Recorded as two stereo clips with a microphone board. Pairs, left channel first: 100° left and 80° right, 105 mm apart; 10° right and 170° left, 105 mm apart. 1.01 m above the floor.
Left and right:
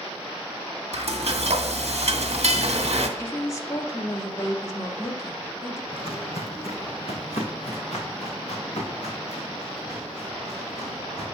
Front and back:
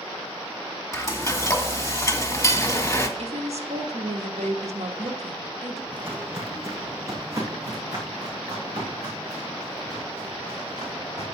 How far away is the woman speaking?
About 1.2 m.